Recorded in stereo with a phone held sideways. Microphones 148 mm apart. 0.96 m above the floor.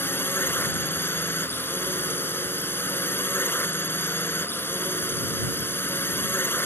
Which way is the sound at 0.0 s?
15° left (ahead or behind).